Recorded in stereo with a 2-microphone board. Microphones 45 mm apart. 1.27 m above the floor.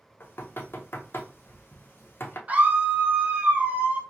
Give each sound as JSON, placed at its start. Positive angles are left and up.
{"t": 0.2, "sound": "knocking", "side_deg": 55, "distance_m": 0.6}
{"t": 2.5, "sound": "a scream", "side_deg": -35, "distance_m": 0.7}